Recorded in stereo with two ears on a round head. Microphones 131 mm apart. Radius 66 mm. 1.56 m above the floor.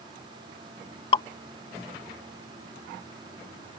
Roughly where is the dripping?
Left.